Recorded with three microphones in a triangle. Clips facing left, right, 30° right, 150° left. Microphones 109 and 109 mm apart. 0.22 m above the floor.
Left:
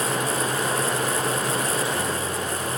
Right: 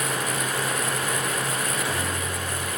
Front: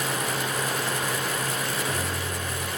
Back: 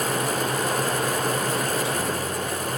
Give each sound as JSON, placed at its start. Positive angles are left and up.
{"t": 1.6, "sound": "a microwave", "azimuth_deg": -65, "distance_m": 3.0}